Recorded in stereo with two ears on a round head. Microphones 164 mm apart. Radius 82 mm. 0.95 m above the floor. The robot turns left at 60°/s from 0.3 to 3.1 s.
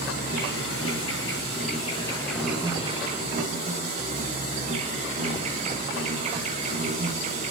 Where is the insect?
130° left, 9.5 m; by 7.5 s 40° right, 9.5 m.